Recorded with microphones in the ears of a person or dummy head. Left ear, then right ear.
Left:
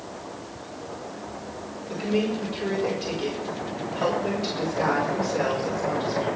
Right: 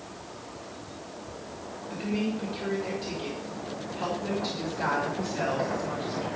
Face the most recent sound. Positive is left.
turn(degrees=60)  # may be behind; listen again after turning